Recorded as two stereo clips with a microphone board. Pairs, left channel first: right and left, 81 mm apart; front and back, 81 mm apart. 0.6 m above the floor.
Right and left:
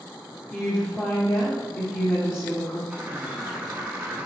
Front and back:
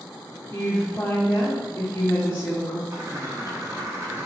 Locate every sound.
0.5 s a woman speaking: 45° right, 1.1 m
2.9 s a bird: 155° left, 0.8 m